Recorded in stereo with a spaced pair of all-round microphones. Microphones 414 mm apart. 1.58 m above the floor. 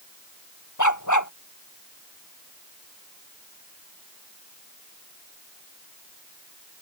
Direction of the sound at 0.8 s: 45° left (ahead or behind).